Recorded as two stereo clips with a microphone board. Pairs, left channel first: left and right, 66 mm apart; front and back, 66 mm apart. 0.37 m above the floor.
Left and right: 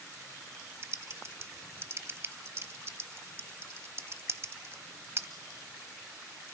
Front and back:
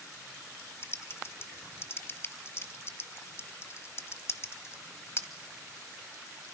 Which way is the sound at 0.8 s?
45° right.